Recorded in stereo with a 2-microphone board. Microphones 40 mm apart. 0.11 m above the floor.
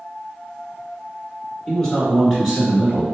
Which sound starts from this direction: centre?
A man speaking, at 1.7 s.